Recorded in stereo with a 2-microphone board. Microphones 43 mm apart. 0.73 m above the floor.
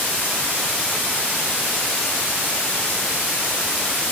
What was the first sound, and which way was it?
Only background noise.